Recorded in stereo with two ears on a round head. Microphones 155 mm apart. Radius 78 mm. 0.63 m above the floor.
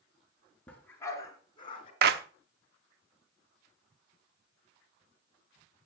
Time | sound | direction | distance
0.7 | a dog barking | 10° left (ahead or behind) | 3 m
2.0 | a clap | 60° right (ahead or behind) | 1.0 m